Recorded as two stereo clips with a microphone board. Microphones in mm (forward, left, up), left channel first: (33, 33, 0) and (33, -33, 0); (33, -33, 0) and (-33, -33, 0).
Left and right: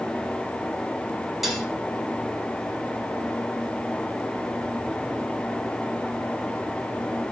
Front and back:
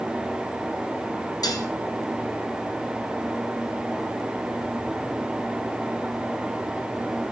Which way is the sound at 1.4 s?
Straight ahead.